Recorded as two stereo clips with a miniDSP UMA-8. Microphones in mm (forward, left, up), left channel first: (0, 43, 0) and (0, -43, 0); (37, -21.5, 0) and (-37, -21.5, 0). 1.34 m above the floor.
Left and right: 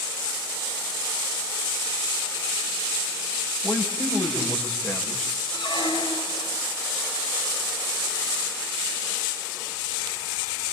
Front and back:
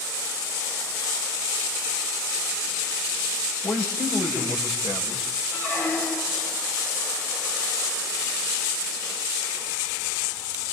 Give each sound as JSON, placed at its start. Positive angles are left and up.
{"t": 3.6, "sound": "a man speaking", "azimuth_deg": 15, "distance_m": 7.5}
{"t": 5.5, "sound": "a squeak", "azimuth_deg": 60, "distance_m": 5.0}